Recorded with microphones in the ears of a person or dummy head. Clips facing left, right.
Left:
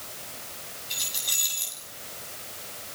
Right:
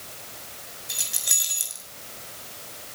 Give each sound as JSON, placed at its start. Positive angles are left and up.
{"t": 0.9, "sound": "keys jangling", "side_deg": -70, "distance_m": 7.5}